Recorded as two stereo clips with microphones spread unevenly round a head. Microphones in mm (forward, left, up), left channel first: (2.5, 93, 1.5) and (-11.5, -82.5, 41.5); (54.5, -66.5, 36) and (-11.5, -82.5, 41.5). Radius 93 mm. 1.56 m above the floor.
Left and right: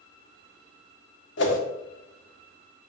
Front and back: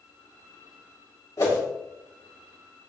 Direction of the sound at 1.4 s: 70° left.